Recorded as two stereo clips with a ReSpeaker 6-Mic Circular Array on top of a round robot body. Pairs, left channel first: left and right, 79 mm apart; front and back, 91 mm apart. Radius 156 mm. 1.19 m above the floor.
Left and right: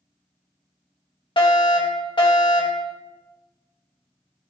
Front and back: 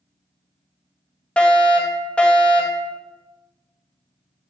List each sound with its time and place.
1.4 s a fire alarm: 80° left, 3.5 m